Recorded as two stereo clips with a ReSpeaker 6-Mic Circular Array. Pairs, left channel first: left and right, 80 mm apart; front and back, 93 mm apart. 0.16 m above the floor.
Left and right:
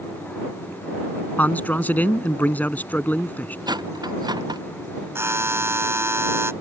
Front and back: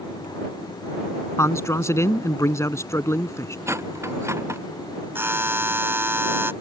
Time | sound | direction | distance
1.4 | a man speaking | 35° left | ?
3.7 | cutlery clinking | 120° right | ?
5.2 | a buzzer | 125° right | ?